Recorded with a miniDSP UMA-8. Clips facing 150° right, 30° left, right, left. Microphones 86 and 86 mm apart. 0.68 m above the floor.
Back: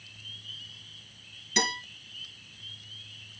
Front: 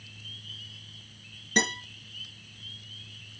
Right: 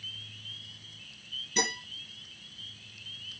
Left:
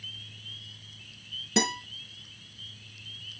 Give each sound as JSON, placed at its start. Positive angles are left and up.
{"t": 1.6, "sound": "a guitar", "azimuth_deg": 80, "distance_m": 4.0}